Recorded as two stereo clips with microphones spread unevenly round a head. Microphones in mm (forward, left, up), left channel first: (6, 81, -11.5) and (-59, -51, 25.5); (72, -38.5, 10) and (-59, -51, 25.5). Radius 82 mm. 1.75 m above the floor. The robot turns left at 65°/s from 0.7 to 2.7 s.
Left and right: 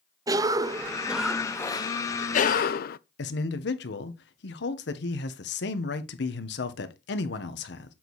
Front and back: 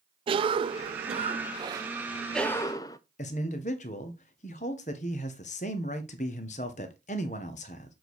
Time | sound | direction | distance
0.3 | a cough | 155° right | 0.5 m
3.2 | a man speaking | 55° left | 1.2 m